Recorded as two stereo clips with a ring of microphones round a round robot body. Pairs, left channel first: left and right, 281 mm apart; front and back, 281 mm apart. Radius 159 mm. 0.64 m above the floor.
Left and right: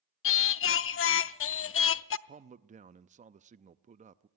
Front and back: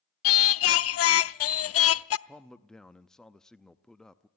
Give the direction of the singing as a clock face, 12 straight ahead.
11 o'clock.